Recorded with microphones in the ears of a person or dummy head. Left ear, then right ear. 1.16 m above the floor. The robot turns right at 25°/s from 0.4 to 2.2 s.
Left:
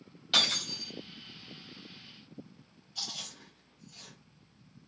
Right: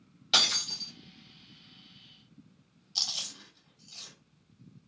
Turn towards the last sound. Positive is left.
turn(degrees=-45)  # may be behind; listen again after turning